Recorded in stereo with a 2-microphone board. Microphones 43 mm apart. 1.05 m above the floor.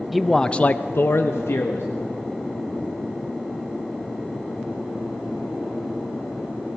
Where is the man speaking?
5° right (ahead or behind), 0.7 m; by 1.9 s 80° left, 1.2 m.